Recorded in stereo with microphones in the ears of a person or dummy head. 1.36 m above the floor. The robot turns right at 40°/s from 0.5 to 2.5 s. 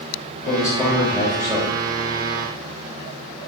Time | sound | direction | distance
0.5 | a man speaking | 160° left | 1.0 m